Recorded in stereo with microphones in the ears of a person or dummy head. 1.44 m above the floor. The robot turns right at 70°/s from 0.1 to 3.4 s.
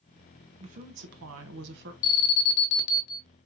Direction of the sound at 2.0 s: 50° left.